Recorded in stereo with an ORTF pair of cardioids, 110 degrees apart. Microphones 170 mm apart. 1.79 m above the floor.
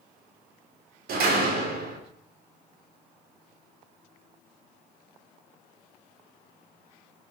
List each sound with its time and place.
1.1 s a door slam: 60° right, 4 m